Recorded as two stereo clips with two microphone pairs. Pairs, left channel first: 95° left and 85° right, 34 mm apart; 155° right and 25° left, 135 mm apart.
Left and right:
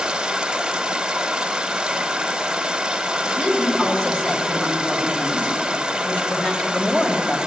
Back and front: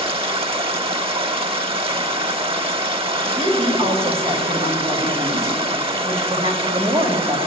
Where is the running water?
20° right, 0.9 m.